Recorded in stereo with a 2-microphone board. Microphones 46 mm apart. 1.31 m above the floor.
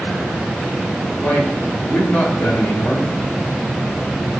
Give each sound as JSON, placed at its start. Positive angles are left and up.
{"t": 1.2, "sound": "a man speaking", "side_deg": 45, "distance_m": 4.5}